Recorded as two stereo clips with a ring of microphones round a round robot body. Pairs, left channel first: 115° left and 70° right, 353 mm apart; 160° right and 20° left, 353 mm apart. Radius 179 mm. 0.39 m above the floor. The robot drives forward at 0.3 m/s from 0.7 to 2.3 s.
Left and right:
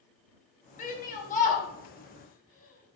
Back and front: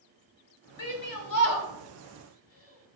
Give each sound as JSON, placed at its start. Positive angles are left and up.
{"t": 0.8, "sound": "a shout", "azimuth_deg": 180, "distance_m": 2.0}